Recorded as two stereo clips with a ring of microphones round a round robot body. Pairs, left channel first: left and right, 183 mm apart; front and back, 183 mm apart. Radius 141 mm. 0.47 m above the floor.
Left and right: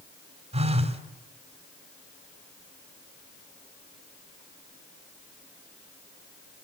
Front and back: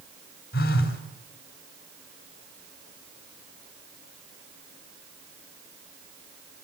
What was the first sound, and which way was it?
A phone buzzing, 35° right.